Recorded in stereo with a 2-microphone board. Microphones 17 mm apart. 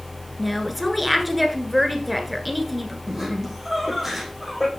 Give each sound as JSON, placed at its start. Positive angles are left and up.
{"t": 0.4, "sound": "a woman speaking", "side_deg": -10, "distance_m": 1.5}
{"t": 3.1, "sound": "laughter", "side_deg": -20, "distance_m": 4.5}